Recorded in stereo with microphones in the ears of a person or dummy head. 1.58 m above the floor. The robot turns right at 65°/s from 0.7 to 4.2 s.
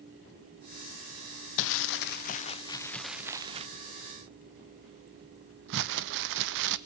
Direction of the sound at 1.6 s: 70° left (ahead or behind).